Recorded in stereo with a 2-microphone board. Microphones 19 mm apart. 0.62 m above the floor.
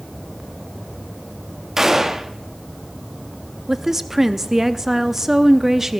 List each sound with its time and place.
1.8 s a gunshot: 20° right (ahead or behind), 0.8 m
3.7 s a woman speaking: 20° right (ahead or behind), 0.6 m